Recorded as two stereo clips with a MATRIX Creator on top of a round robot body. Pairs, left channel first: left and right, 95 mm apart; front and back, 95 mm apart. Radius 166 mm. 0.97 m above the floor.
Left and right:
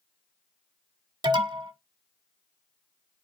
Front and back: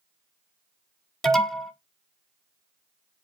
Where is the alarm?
85° right, 1.6 m.